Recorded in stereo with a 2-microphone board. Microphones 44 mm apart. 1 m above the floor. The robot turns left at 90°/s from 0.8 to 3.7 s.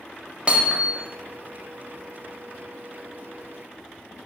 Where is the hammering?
25° right (ahead or behind), 0.8 m; by 1.1 s 10° right (ahead or behind), 0.8 m.